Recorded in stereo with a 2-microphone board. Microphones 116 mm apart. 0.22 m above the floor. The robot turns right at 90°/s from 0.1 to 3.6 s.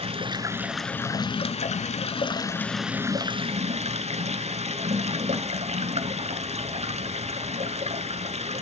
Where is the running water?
60° right, 0.7 m; by 8.6 s 105° right, 0.7 m.